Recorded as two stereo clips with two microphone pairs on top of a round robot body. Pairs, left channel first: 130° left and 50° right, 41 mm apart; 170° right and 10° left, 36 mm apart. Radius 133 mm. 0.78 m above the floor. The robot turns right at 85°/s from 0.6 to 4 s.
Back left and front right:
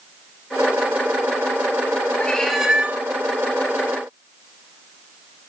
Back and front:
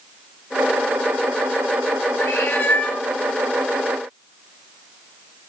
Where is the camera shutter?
No camera shutter in this recording.